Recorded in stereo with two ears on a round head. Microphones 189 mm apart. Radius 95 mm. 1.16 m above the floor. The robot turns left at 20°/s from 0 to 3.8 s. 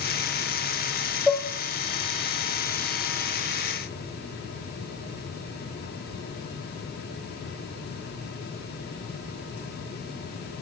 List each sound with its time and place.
1.3 s dishes clattering: 5° left (ahead or behind), 0.6 m; by 1.4 s centre (ahead or behind), 0.6 m